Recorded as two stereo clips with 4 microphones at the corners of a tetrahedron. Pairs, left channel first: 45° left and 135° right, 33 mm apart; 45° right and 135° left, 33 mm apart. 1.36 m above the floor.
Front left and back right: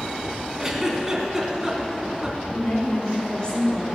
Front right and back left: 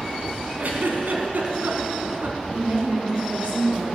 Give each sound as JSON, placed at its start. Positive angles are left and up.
{"t": 0.6, "sound": "a giggle", "azimuth_deg": 145, "distance_m": 2.5}
{"t": 2.5, "sound": "a woman speaking", "azimuth_deg": 105, "distance_m": 5.0}